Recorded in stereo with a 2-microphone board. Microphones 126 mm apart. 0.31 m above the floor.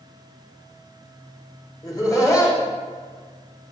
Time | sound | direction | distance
1.8 | laughter | 30° left (ahead or behind) | 0.9 m